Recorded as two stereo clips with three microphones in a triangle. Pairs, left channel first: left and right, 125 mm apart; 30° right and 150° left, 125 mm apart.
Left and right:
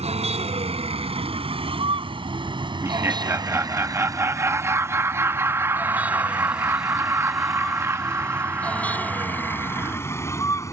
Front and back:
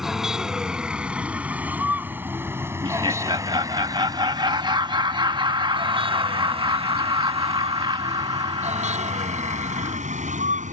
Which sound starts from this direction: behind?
Laughter, at 2.8 s.